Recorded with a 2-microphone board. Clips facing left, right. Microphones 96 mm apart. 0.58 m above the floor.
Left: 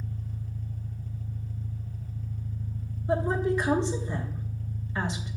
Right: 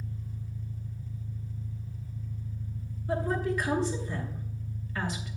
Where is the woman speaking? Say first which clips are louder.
Left 3 dB; 25° left (ahead or behind), 1.0 m.